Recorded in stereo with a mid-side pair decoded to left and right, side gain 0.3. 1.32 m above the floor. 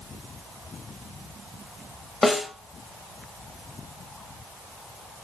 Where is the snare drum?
45° left, 1.1 m.